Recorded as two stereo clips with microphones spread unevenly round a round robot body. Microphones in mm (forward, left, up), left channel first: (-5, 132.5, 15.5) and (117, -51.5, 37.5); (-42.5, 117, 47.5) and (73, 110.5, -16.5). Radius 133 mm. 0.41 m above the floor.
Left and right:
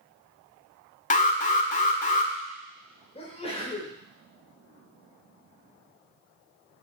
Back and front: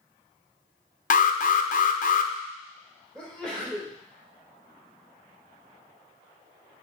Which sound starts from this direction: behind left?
An alarm, at 1.1 s.